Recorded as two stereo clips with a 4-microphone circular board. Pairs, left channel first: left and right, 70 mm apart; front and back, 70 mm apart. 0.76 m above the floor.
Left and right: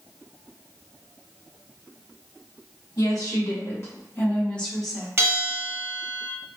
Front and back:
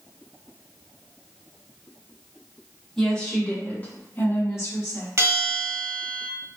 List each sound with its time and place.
3.0 s a woman speaking: 85° left, 1.5 m; by 5.1 s 5° right, 1.1 m
5.2 s a bell: 135° right, 1.0 m